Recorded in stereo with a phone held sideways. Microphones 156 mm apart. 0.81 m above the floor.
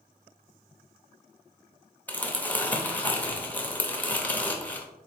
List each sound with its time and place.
2.1 s crumpling: 10° left (ahead or behind), 0.7 m